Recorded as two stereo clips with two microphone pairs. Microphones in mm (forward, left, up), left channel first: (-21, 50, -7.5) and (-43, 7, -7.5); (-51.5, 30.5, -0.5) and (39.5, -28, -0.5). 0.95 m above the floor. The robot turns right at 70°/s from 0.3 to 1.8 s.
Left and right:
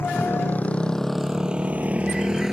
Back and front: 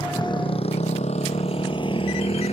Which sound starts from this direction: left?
A motorcycle, at 0.0 s.